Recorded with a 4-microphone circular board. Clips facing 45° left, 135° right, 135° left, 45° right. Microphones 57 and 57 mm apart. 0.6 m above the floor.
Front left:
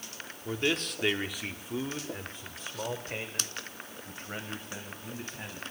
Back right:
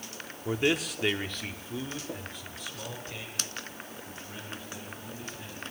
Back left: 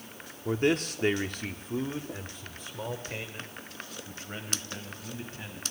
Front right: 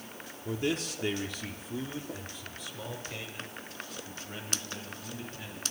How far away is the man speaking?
About 1.1 m.